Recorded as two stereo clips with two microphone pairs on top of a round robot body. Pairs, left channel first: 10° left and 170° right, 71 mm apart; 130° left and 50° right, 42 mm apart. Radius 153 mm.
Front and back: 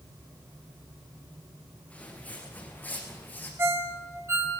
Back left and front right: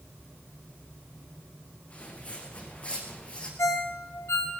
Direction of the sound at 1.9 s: 80° left.